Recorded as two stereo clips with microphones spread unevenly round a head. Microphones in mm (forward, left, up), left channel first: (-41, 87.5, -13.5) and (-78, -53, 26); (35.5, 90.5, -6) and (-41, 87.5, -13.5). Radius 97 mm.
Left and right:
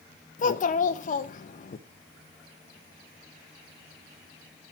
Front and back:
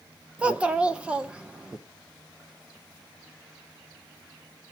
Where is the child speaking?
105° left, 0.9 m.